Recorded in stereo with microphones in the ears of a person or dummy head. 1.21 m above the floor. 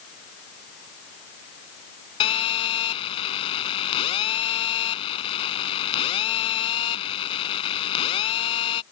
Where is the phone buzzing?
25° left (ahead or behind).